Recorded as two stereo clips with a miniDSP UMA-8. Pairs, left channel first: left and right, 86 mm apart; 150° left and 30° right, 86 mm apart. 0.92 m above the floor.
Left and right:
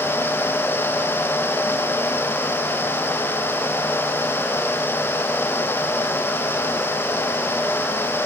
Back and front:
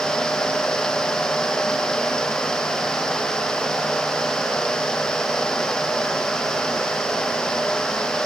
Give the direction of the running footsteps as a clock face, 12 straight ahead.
No running footsteps in this recording.